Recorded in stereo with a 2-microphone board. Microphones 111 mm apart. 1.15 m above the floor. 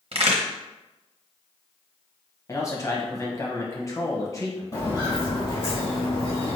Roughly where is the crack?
Right.